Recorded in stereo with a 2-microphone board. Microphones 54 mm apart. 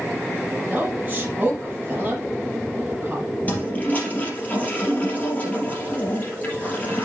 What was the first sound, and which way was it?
A woman speaking, 30° right (ahead or behind).